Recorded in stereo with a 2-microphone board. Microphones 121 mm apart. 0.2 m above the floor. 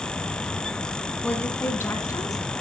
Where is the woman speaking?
10° left (ahead or behind), 1.9 m; by 2.5 s 30° left (ahead or behind), 3 m.